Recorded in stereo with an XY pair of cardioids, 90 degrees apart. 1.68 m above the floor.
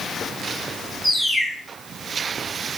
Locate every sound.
1.0 s a bird: 5° left, 1.7 m